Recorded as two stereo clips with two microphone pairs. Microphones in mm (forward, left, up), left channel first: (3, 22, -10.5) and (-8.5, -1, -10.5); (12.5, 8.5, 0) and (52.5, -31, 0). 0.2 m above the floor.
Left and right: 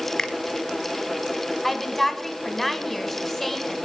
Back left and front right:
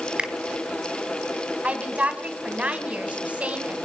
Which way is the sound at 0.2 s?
10° left.